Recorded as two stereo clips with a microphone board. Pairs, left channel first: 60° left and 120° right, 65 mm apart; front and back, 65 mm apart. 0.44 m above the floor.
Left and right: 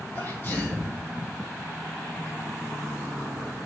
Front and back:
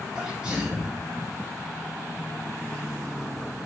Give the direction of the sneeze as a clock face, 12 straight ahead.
8 o'clock.